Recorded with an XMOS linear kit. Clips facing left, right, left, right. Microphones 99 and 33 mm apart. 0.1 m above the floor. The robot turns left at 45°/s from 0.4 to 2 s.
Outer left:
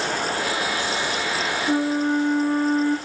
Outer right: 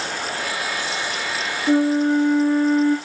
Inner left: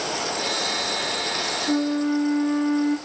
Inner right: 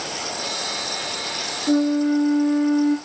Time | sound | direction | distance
1.7 | a flute | 65° right (ahead or behind) | 6.5 m